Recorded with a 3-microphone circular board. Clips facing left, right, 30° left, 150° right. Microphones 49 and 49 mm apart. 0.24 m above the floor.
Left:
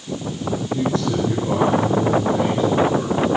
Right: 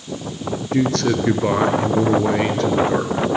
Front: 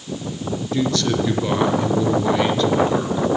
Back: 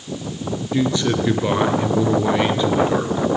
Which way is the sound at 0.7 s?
80° right.